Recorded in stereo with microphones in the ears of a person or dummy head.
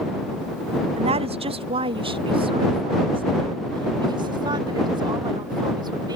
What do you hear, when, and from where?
1.0 s a woman speaking: 35° right (ahead or behind); by 6.2 s 25° right (ahead or behind)